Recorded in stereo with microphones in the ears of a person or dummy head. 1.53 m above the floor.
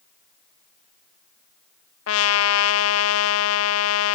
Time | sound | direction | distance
2.1 | a trumpet | 75° left (ahead or behind) | 0.6 m